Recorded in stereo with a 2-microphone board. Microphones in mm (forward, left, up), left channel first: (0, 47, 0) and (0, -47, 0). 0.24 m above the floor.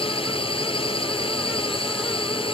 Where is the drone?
70° left (ahead or behind).